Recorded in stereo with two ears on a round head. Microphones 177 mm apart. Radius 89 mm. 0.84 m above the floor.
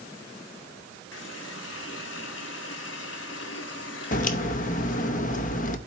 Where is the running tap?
70° left (ahead or behind), 1.2 m.